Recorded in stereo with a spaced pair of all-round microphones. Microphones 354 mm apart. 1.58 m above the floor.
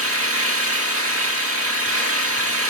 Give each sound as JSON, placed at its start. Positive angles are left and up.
{"t": 0.0, "sound": "an engine running", "side_deg": -40, "distance_m": 1.9}